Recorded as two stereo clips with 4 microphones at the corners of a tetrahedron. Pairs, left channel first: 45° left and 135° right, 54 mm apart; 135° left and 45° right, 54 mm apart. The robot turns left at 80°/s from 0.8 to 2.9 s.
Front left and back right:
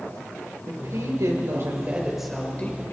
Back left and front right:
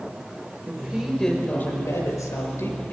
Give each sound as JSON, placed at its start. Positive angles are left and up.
{"t": 0.7, "sound": "a woman speaking", "azimuth_deg": -105, "distance_m": 5.5}